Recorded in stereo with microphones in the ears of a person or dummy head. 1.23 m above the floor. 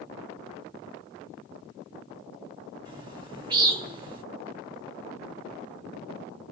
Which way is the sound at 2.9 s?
25° right (ahead or behind).